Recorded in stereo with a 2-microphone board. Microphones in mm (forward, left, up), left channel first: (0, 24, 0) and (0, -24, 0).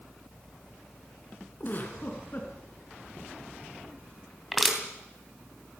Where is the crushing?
Centre (ahead or behind), 3 m.